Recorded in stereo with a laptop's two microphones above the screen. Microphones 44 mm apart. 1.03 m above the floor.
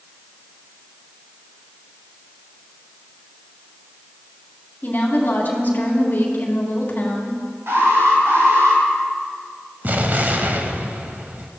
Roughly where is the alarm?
Right.